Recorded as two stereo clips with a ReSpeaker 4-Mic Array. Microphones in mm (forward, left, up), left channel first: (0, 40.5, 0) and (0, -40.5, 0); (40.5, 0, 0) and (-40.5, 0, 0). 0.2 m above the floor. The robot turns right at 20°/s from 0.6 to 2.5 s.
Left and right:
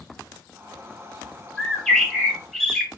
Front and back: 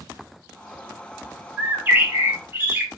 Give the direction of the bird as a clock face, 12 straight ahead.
7 o'clock.